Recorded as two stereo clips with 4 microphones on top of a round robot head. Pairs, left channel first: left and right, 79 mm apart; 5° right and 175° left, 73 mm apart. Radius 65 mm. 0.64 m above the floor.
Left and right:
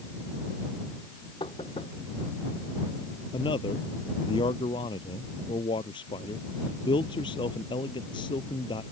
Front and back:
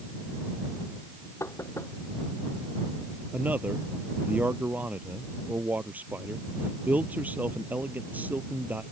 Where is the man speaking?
110° left.